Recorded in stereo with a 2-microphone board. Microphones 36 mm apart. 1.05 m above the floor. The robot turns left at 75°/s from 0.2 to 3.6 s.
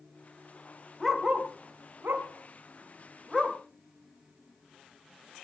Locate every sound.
1.0 s a dog barking: 5° left (ahead or behind), 2.5 m; by 3.6 s 10° left (ahead or behind), 2.5 m